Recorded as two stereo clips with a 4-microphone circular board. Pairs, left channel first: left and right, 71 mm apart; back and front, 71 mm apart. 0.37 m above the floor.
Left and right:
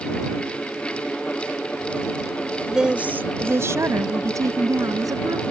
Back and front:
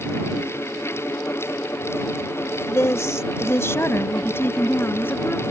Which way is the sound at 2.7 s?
170° right.